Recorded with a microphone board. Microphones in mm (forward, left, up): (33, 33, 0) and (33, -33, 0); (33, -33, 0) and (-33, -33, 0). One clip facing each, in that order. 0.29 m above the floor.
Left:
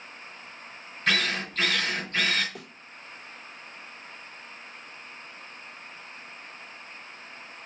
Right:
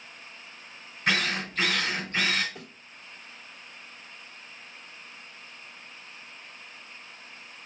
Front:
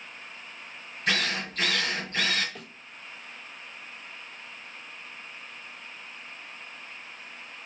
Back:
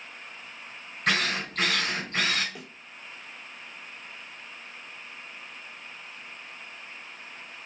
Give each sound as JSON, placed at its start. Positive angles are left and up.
{"t": 1.1, "sound": "a drill", "azimuth_deg": -170, "distance_m": 2.5}
{"t": 2.5, "sound": "a thud", "azimuth_deg": 100, "distance_m": 1.0}